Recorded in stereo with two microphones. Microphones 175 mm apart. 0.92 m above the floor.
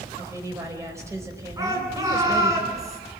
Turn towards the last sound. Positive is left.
turn(degrees=-20)  # may be behind; listen again after turning